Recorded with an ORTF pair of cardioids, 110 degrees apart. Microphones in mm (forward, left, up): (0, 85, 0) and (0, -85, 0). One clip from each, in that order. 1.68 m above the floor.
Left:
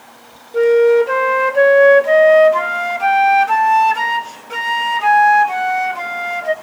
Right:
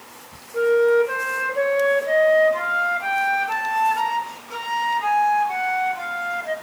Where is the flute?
45° left, 0.7 m.